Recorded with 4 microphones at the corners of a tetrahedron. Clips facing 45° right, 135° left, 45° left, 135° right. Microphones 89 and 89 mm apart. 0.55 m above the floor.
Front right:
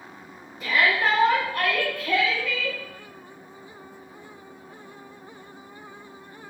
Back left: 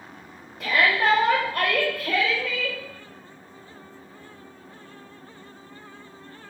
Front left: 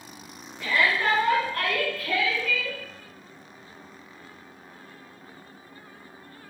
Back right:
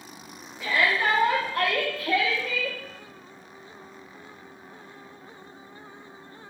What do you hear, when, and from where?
0.6 s a shout: 145° left, 4 m; by 2.8 s 170° right, 2.0 m